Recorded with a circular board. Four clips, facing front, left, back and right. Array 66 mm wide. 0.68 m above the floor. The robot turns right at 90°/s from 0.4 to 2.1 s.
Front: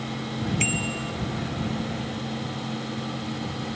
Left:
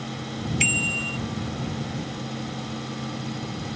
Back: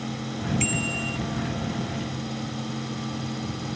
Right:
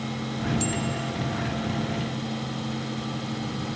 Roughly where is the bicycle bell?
Left.